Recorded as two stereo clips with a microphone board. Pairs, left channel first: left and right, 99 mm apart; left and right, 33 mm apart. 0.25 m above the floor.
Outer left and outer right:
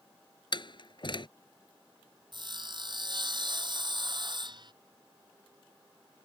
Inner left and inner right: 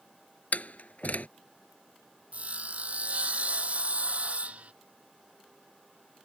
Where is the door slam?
55° left (ahead or behind).